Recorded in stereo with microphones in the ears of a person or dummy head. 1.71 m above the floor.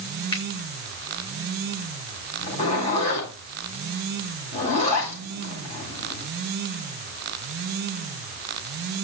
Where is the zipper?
35° left (ahead or behind), 8.5 m.